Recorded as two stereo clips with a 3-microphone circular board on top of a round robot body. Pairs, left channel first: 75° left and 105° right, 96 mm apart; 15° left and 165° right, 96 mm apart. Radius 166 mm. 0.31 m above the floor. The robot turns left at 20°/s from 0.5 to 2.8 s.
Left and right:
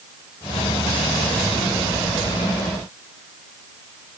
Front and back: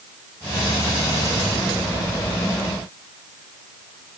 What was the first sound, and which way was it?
Only background noise.